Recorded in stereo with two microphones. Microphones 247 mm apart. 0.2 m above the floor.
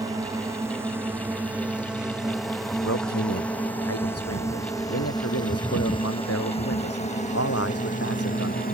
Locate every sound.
0.0 s a drone: 15° right (ahead or behind); by 8.7 s 35° left (ahead or behind)
2.8 s a man speaking: 65° left (ahead or behind)